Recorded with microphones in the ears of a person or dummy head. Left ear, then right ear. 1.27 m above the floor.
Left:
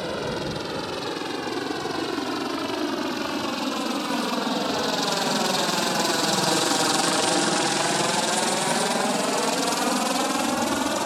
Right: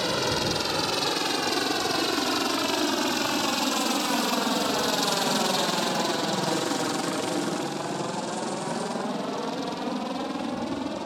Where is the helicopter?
25° right (ahead or behind); by 11.1 s 45° left (ahead or behind).